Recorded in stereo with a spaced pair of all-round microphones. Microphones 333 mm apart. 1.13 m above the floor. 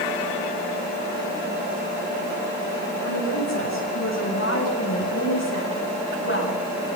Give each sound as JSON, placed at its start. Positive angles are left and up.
{"t": 3.0, "sound": "a woman speaking", "side_deg": 55, "distance_m": 6.0}